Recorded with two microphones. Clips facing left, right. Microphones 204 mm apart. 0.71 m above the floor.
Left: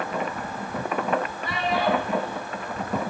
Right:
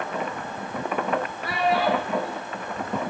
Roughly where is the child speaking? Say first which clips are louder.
Right 5 dB; right.